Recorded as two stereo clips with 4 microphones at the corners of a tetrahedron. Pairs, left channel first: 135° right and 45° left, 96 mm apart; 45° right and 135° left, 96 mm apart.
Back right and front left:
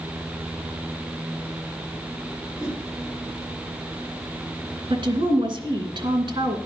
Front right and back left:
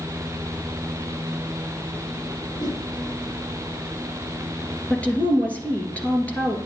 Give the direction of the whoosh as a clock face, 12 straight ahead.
3 o'clock.